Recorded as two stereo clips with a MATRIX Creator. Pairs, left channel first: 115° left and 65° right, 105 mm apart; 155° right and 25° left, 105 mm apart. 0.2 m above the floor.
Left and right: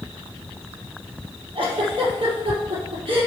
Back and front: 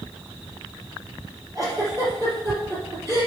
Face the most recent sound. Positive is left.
turn(degrees=-30)